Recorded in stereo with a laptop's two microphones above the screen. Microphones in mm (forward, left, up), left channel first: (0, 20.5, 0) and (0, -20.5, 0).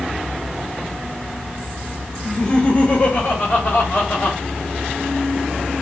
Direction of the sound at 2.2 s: 5° left (ahead or behind).